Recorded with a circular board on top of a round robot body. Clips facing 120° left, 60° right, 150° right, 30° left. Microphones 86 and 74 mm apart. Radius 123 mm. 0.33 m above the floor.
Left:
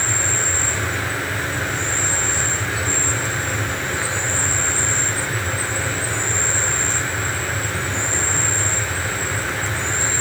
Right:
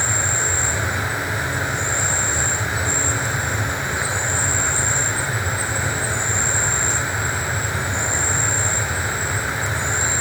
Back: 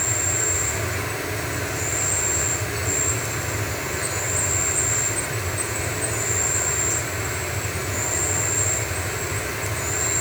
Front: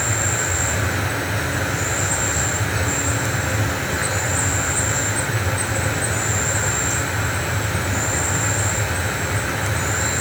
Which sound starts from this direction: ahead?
An insect, at 0.0 s.